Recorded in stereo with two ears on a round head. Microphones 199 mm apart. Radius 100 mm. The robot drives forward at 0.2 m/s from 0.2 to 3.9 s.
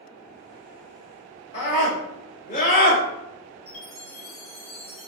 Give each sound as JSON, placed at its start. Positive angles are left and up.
{"t": 1.5, "sound": "a scream", "side_deg": 30, "distance_m": 1.5}
{"t": 3.7, "sound": "a chime", "side_deg": 30, "distance_m": 1.5}